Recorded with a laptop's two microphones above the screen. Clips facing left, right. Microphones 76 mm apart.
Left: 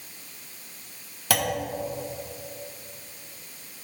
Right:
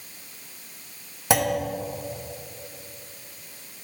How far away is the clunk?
About 0.7 m.